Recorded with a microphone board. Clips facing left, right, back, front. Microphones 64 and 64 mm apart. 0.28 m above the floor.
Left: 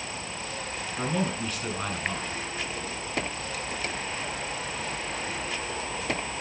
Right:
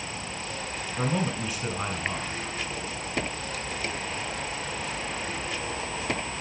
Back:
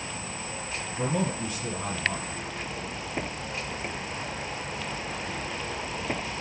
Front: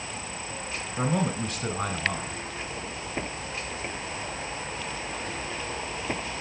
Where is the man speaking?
15° right, 2 m.